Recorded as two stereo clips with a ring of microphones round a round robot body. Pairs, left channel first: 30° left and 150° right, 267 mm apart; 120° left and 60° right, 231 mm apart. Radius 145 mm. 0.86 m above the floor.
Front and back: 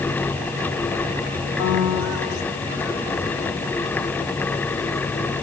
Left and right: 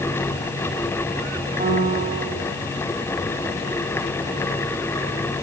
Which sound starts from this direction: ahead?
A piano, at 1.6 s.